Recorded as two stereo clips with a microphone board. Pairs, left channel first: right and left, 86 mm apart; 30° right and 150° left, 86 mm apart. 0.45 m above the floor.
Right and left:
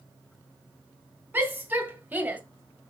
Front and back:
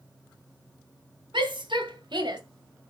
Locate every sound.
1.3 s a shout: 160° left, 3.5 m